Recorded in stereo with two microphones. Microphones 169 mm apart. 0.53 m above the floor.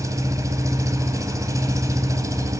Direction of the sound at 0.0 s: 20° right (ahead or behind).